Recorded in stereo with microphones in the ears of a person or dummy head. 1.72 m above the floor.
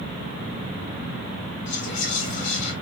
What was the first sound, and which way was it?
Whispering, 40° left (ahead or behind).